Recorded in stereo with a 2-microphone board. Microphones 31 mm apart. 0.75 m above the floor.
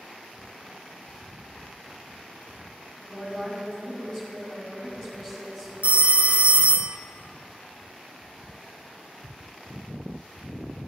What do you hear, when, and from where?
3.0 s a woman speaking: 15° left (ahead or behind), 5 m
5.8 s a phone ringing: 45° right (ahead or behind), 0.5 m